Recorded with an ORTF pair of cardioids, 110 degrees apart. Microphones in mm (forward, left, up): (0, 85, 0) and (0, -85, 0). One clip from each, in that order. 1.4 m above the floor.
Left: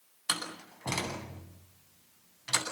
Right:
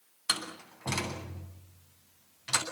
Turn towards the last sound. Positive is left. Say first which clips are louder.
# right 1 dB
turn(degrees=5)